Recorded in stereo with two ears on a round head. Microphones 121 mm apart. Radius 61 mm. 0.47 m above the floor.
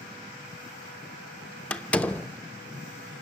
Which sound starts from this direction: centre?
A door slam, at 1.7 s.